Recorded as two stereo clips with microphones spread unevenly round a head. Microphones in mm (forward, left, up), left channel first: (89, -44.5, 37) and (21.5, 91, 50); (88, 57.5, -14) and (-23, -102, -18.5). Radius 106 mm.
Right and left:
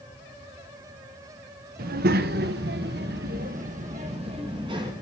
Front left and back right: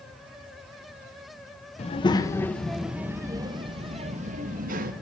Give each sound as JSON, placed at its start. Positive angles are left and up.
{"t": 1.8, "sound": "a child speaking", "azimuth_deg": 110, "distance_m": 1.2}